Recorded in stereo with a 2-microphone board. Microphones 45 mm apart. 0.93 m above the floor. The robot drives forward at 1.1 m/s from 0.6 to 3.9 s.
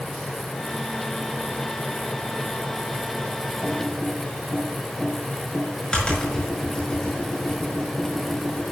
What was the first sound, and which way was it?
Typing on a keyboard, 25° left (ahead or behind).